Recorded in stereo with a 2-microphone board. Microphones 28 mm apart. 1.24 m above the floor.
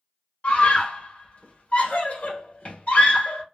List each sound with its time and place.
0.4 s a scream: 45° left (ahead or behind), 1.7 m